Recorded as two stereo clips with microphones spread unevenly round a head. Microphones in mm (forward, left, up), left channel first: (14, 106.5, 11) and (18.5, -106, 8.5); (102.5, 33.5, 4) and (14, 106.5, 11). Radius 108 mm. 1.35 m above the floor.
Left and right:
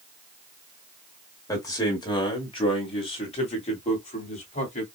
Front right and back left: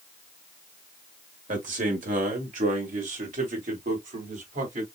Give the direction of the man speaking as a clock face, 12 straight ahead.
6 o'clock.